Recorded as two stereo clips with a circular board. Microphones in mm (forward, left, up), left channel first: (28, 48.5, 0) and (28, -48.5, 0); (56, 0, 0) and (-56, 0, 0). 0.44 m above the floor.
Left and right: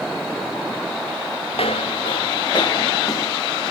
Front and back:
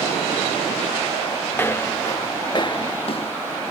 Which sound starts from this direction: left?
Footsteps, at 1.5 s.